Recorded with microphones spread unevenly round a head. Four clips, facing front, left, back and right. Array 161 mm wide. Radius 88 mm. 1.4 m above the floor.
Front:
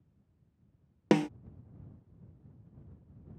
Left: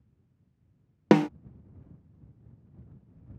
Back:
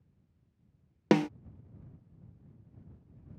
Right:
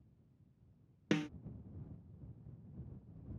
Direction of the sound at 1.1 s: 100° left.